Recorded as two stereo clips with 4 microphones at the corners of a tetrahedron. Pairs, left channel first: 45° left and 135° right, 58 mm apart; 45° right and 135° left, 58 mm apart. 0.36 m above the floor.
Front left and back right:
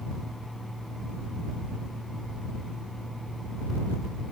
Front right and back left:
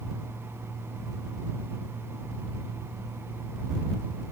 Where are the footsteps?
I don't hear footsteps.